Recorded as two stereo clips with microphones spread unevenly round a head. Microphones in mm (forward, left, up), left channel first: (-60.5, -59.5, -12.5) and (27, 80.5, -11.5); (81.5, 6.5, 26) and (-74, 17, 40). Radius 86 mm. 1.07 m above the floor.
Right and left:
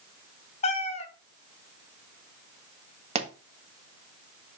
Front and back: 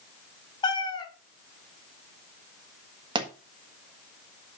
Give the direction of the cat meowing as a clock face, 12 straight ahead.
2 o'clock.